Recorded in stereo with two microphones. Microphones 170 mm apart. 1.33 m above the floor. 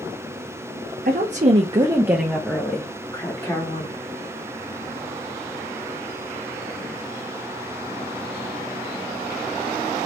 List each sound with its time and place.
1.1 s a woman speaking: 55° right (ahead or behind), 0.7 m; by 4.0 s 30° left (ahead or behind), 1.5 m